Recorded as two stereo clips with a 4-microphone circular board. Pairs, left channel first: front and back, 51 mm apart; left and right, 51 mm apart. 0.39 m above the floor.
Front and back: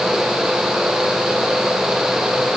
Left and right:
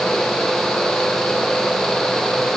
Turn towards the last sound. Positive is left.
No sound to turn to.